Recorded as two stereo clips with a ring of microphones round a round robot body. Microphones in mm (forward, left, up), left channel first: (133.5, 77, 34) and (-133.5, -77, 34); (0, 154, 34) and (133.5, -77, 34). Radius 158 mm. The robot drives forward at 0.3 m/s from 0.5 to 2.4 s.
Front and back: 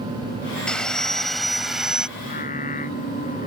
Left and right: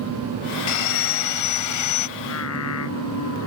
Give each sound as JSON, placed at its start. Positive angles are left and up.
{"t": 0.7, "sound": "sawing", "azimuth_deg": 115}
{"t": 2.2, "sound": "singing", "azimuth_deg": 95}